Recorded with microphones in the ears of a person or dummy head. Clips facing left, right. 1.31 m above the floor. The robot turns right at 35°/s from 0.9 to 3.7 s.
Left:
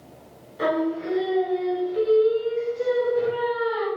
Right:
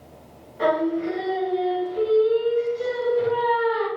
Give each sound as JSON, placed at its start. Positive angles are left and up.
{"t": 0.6, "sound": "singing", "azimuth_deg": 60, "distance_m": 1.4}